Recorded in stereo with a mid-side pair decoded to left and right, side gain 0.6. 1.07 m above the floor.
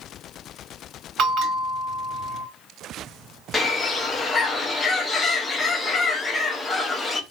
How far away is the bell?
About 1.5 m.